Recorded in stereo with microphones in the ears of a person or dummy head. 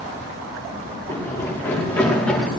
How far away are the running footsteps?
About 8 m.